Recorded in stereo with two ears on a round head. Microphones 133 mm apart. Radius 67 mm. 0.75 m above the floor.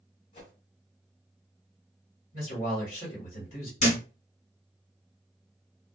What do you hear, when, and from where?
0.3 s a whoosh: 55° left (ahead or behind), 1.3 m
2.3 s a man speaking: 55° left (ahead or behind), 1.5 m
3.8 s a thud: 50° left (ahead or behind), 1.3 m